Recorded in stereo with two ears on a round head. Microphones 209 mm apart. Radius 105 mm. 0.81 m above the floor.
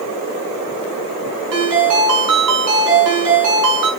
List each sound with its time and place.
1.5 s a ringtone: 70° right (ahead or behind), 4 m